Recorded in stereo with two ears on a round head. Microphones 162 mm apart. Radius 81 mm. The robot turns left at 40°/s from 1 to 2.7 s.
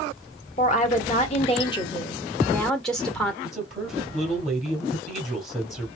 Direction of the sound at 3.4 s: Centre (ahead or behind).